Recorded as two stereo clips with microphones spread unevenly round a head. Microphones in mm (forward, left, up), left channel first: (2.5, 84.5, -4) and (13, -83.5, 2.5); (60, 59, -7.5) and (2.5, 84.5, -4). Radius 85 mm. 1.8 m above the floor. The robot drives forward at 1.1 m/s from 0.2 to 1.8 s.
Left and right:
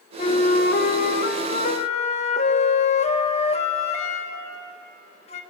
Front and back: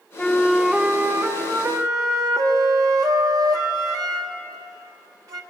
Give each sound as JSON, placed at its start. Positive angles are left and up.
{"t": 0.2, "sound": "a flute", "azimuth_deg": 45, "distance_m": 1.2}